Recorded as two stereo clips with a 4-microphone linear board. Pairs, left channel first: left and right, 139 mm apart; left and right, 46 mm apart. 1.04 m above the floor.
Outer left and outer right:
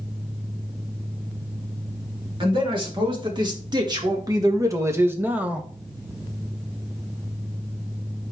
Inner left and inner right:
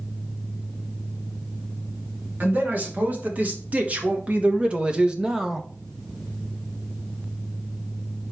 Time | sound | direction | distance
2.4 | a man speaking | 40° right (ahead or behind) | 2.5 m